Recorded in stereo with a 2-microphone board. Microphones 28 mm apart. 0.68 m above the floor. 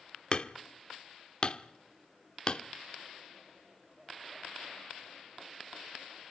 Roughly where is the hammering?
Left.